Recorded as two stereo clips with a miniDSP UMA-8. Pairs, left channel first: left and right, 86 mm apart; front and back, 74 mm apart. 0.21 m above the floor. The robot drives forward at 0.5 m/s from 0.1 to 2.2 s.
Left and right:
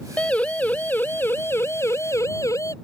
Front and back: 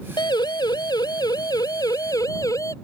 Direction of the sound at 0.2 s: 15° left.